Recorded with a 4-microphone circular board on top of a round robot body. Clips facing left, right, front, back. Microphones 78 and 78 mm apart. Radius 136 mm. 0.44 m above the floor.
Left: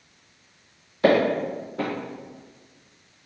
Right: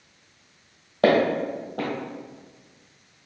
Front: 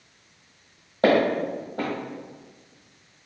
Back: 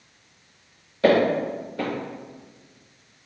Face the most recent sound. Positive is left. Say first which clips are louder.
# even, back 1 dB
turn(degrees=-60)